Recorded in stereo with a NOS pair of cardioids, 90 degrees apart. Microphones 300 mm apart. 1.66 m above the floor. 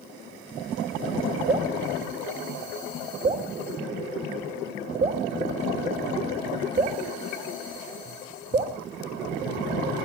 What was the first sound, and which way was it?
Dripping, 30° right.